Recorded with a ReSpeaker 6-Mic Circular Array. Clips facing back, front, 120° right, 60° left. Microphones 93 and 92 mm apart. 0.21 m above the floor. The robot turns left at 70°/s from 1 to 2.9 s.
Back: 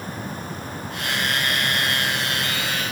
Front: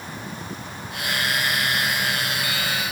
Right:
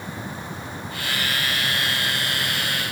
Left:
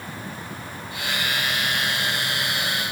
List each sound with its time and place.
Only background noise.